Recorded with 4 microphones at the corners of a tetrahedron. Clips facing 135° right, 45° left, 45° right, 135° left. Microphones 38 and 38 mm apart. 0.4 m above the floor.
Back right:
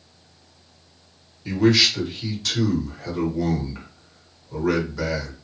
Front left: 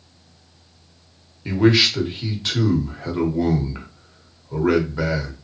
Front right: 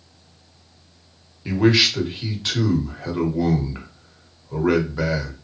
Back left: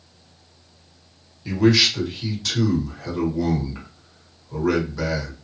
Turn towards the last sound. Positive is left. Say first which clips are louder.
# front left 2 dB, even
turn(degrees=0)